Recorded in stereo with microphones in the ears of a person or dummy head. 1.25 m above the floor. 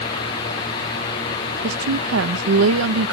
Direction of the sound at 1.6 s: 75° right (ahead or behind).